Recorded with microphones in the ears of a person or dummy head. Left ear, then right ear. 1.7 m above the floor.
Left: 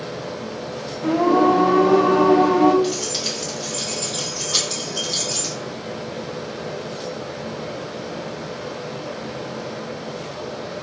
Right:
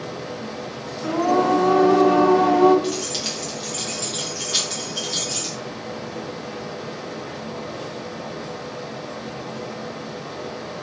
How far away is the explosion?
No explosion in this recording.